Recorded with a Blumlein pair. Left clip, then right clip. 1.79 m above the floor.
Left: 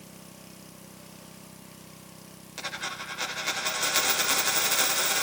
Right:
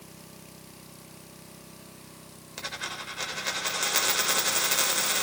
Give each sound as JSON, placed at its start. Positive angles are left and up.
{"t": 2.6, "sound": "a dropped coin", "azimuth_deg": -5, "distance_m": 3.5}